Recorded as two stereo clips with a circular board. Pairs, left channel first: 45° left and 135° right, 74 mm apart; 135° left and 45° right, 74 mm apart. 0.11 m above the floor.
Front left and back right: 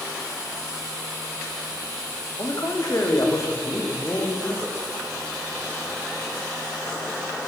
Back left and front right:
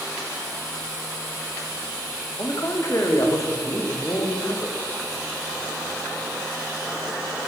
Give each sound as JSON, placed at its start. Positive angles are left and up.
{"t": 2.4, "sound": "a man speaking", "azimuth_deg": 85, "distance_m": 5.5}